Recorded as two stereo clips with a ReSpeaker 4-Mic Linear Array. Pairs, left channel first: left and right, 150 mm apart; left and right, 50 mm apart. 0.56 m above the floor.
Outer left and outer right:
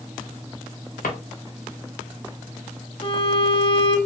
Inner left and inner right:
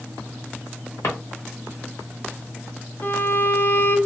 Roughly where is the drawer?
Left.